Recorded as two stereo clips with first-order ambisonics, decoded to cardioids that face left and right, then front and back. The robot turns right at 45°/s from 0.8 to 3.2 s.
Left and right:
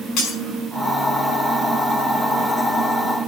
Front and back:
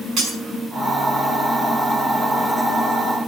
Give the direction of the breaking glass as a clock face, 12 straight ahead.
8 o'clock.